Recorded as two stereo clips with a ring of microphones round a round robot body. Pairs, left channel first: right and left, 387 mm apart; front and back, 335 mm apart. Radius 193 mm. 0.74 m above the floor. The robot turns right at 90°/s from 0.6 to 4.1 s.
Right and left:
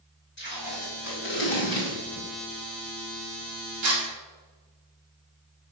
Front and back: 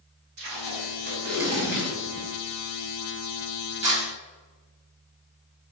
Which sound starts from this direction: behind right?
Tape being pulled, at 0.4 s.